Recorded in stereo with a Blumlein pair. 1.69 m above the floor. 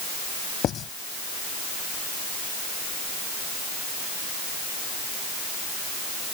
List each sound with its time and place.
0.6 s writing: 30° left